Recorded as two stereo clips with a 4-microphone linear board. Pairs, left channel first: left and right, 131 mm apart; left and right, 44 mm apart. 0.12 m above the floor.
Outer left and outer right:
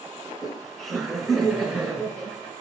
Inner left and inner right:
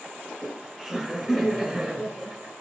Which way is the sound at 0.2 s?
Centre (ahead or behind).